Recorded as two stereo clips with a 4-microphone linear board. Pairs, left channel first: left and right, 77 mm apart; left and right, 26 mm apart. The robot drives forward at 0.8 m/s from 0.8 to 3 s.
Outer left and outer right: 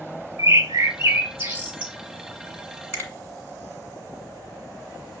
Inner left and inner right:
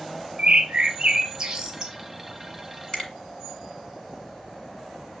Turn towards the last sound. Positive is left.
turn(degrees=35)  # may be behind; listen again after turning